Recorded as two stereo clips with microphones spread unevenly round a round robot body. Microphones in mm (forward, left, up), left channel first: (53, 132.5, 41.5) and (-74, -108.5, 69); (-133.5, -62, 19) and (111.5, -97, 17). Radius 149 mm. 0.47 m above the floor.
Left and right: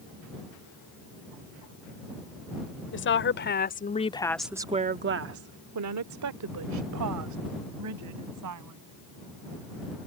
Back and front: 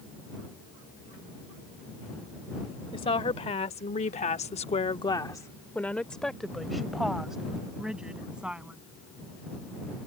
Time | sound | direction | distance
2.9 | a woman speaking | 100° left | ?